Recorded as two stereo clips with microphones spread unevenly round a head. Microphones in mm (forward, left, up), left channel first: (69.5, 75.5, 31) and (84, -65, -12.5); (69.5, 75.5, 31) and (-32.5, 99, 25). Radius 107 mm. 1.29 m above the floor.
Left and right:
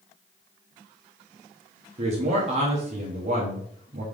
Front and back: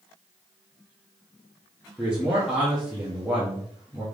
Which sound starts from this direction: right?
A man speaking, at 2.0 s.